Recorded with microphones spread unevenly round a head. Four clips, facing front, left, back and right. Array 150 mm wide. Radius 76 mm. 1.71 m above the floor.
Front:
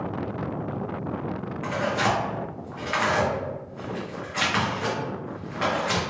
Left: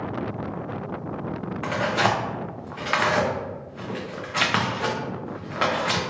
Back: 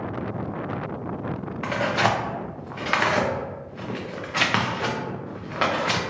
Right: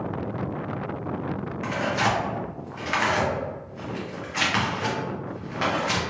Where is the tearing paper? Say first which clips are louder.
Left 2 dB, back 2 dB; 145° left, 0.6 m.